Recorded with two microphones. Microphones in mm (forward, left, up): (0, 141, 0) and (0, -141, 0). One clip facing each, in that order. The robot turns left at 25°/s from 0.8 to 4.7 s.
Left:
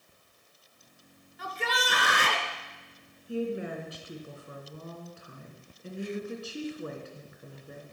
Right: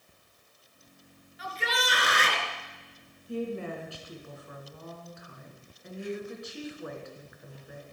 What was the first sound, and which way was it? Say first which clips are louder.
A shout: even; 60° left (ahead or behind).